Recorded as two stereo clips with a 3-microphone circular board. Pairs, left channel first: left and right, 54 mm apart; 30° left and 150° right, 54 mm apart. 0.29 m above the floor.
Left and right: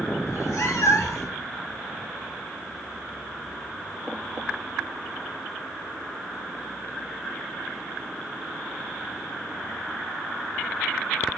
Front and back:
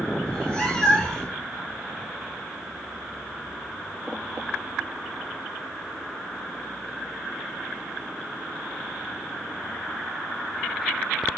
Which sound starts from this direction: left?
A cat meowing, at 0.3 s.